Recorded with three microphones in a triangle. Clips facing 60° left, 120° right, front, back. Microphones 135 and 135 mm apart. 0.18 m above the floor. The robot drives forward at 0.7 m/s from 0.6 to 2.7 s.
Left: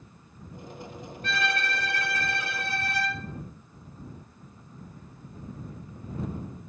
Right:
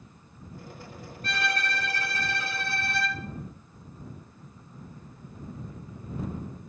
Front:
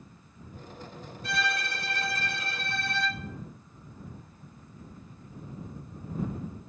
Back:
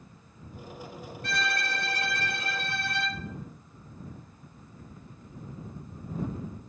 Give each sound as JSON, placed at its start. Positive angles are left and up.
{"t": 1.2, "sound": "a violin", "azimuth_deg": -170, "distance_m": 2.5}